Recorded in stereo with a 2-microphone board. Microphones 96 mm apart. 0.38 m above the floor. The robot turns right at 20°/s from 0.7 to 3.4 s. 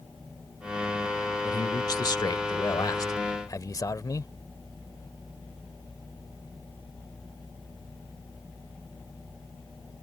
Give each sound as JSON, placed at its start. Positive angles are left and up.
{"t": 1.4, "sound": "a man speaking", "azimuth_deg": 80}